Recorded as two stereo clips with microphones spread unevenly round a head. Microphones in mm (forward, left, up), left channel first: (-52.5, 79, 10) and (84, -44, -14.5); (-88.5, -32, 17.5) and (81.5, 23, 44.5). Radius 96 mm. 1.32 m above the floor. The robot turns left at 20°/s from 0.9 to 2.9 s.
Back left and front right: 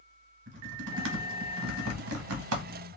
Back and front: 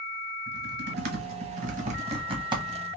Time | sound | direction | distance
0.5 | typing on a keyboard | 15° right | 1.0 m